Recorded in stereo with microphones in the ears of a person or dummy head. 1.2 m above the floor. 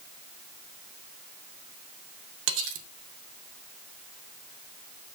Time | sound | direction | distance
2.5 | cutlery clinking | 70° right (ahead or behind) | 1.3 m